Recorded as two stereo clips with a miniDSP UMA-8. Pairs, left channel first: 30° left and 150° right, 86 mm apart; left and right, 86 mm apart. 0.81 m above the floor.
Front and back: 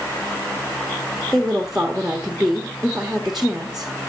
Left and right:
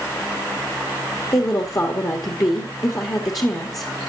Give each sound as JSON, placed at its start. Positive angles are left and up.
{"t": 1.3, "sound": "a woman speaking", "azimuth_deg": 125, "distance_m": 1.2}